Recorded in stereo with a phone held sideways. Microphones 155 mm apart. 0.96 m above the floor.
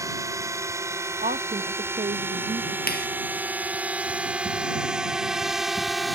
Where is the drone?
20° right (ahead or behind); by 6.2 s centre (ahead or behind).